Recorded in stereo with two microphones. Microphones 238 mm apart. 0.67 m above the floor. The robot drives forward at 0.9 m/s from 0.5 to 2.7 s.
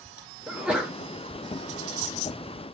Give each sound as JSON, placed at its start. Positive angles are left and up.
{"t": 0.5, "sound": "a sneeze", "side_deg": -5, "distance_m": 1.0}